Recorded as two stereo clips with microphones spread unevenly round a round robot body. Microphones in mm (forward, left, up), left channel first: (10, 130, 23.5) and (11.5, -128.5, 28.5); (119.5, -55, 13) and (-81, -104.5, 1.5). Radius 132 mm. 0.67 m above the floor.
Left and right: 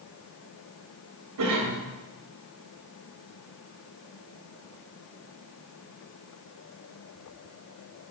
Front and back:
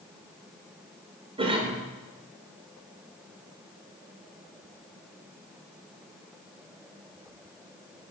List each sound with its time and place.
1.4 s a cough: 105° right, 1.8 m